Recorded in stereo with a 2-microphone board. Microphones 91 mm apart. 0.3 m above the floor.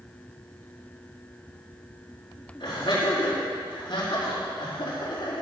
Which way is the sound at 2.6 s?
55° left (ahead or behind).